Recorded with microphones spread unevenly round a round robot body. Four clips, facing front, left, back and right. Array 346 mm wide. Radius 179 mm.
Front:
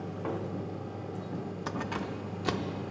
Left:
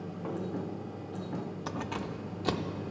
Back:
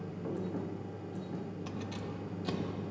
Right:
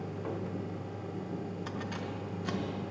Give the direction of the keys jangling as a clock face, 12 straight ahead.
11 o'clock.